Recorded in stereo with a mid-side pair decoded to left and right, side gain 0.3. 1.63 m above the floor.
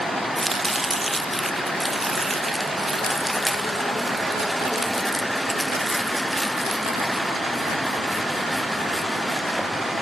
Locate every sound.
0.4 s chopping: 15° right, 0.8 m